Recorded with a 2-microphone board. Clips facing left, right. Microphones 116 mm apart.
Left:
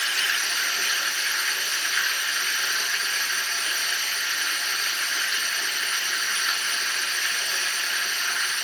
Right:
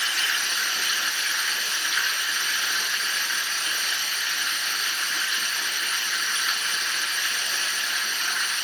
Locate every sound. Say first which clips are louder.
0.0 s running water: even; 5° right (ahead or behind), 2 m